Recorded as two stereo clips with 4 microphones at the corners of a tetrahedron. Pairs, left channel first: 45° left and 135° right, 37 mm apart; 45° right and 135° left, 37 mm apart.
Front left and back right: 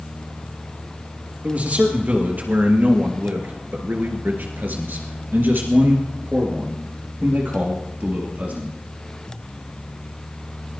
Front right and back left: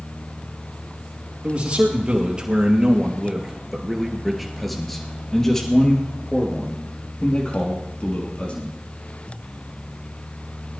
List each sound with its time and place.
1.4 s a man speaking: 175° right, 4.5 m; by 8.7 s 95° right, 5.5 m